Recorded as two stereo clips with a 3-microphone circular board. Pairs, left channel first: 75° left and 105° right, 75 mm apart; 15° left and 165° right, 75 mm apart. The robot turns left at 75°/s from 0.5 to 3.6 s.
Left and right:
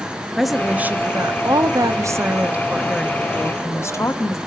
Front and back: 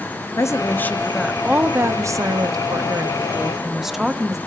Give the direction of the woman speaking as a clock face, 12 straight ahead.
1 o'clock.